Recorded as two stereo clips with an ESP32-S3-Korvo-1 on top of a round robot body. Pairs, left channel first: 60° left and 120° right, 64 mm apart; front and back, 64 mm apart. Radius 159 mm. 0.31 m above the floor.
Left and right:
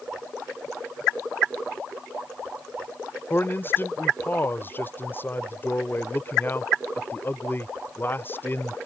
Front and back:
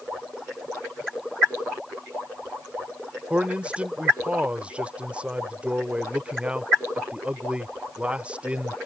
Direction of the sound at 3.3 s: 110° left.